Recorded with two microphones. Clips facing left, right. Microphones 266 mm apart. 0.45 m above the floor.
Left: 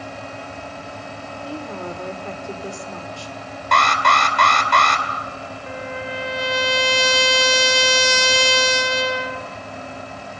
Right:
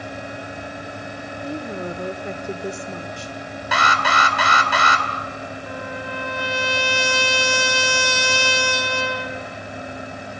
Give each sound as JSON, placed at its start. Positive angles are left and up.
{"t": 1.4, "sound": "a woman speaking", "side_deg": -20, "distance_m": 1.0}
{"t": 3.7, "sound": "an alarm", "side_deg": -5, "distance_m": 2.5}
{"t": 5.7, "sound": "a trumpet", "side_deg": 25, "distance_m": 1.3}